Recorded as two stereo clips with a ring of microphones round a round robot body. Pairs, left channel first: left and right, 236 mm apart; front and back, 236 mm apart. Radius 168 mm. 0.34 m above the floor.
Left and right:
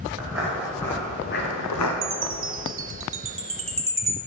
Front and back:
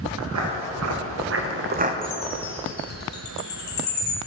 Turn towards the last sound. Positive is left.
turn(degrees=-55)